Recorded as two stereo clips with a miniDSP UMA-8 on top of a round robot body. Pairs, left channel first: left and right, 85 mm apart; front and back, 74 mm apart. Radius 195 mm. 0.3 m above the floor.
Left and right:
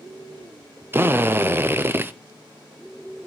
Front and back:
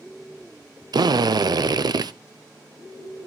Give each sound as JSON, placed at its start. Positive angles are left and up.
{"t": 0.9, "sound": "a drill", "azimuth_deg": -155, "distance_m": 0.7}